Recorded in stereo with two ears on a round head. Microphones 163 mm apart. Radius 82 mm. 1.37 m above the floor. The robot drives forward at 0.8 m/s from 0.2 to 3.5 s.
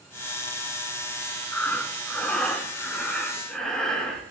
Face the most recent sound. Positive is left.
turn(degrees=5)  # may be behind; listen again after turning